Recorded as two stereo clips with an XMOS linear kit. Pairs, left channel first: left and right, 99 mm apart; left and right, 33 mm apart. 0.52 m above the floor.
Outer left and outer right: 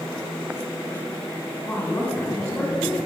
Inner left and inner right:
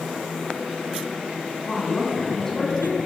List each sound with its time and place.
1.7 s a woman speaking: 20° left (ahead or behind), 2 m